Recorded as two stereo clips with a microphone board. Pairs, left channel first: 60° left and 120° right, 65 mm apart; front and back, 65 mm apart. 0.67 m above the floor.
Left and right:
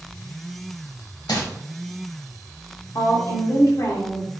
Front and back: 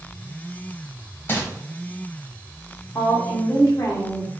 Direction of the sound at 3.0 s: 35° left.